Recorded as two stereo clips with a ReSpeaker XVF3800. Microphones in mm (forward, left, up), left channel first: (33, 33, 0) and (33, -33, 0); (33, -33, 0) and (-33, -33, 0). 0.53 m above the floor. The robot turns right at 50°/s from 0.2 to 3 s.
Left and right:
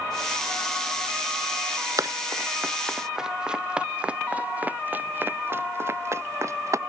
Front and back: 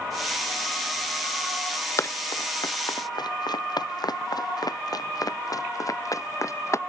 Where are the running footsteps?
50° right; by 6.8 s 45° right.